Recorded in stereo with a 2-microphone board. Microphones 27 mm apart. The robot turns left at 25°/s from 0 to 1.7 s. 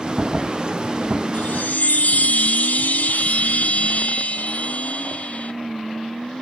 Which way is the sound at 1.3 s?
75° left (ahead or behind).